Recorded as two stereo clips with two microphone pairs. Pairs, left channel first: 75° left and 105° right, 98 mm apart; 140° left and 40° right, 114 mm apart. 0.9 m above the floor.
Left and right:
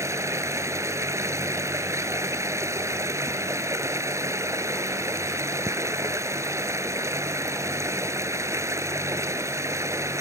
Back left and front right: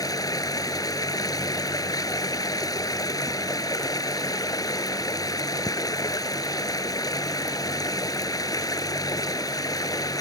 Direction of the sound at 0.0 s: 165° right.